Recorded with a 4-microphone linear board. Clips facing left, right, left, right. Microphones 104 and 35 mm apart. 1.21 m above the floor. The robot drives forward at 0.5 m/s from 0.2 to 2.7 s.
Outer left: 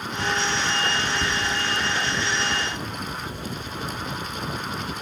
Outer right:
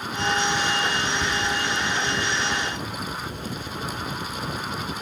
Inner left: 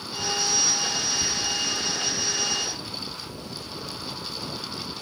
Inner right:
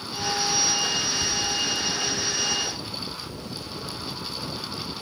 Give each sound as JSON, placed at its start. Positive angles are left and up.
{"t": 1.2, "sound": "whispering", "side_deg": 30, "distance_m": 0.5}